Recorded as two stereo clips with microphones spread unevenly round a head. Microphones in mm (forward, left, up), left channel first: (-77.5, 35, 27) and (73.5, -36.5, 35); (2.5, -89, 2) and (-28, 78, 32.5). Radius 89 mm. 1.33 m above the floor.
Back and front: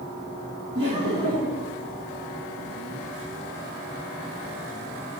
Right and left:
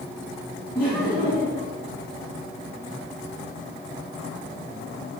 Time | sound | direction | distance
0.8 | laughter | straight ahead | 2 m